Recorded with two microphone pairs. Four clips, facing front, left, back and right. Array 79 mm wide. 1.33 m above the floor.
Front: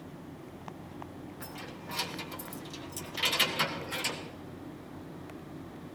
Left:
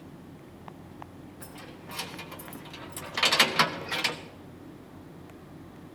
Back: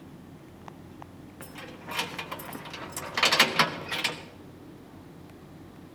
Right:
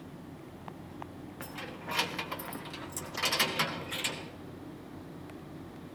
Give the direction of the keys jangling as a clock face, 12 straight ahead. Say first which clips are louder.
Right 5 dB, back 5 dB; 4 o'clock.